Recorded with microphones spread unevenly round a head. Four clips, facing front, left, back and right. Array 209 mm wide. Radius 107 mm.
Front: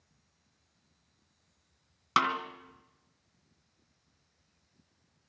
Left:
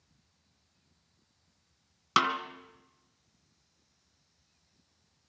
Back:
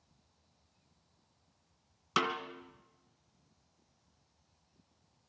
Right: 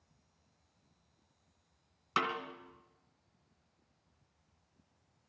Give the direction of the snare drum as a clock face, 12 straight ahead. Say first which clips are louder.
Left 7 dB, front 5 dB; 10 o'clock.